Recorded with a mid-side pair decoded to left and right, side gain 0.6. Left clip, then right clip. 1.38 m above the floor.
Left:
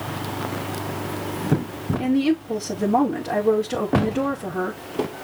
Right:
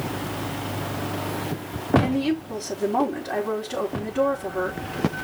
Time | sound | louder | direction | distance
2.0 | a woman speaking | left 3 dB | 45° left | 4.5 m